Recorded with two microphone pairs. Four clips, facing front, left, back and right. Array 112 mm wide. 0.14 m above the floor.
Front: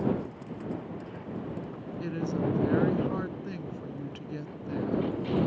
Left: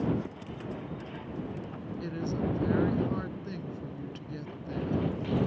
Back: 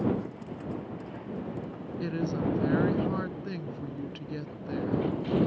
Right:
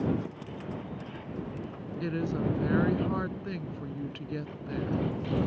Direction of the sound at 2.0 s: 120° right.